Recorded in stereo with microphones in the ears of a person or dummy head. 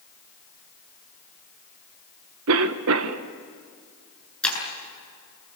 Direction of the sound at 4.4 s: 5° left (ahead or behind).